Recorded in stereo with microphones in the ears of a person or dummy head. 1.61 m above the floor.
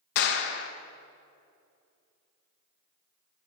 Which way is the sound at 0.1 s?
65° left (ahead or behind).